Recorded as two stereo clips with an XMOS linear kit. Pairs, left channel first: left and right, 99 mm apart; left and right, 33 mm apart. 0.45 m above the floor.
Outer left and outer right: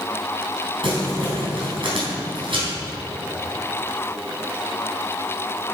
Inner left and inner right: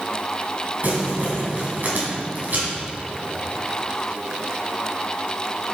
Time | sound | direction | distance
0.8 | crumpling | 60° right (ahead or behind) | 4 m